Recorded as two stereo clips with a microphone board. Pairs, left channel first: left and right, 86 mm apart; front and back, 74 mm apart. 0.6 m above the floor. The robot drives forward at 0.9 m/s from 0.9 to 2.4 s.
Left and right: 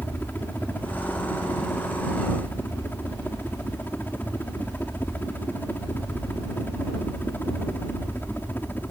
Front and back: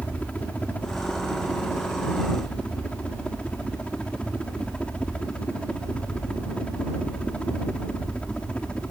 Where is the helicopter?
50° left; by 8.9 s 55° left.